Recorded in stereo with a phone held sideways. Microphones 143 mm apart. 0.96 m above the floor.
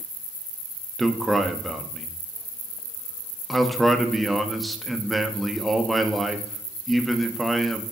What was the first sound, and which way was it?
A man speaking, centre (ahead or behind).